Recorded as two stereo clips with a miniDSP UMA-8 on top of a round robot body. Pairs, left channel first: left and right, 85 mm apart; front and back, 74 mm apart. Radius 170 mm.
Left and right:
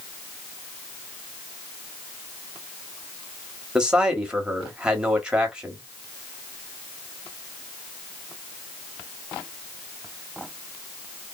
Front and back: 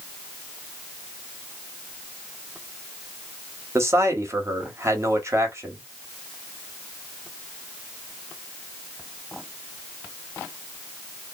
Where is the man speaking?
160° right, 1.7 m.